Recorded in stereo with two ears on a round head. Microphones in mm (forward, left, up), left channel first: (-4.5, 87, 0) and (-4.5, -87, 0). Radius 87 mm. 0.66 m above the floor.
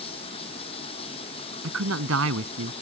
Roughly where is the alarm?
I don't hear an alarm.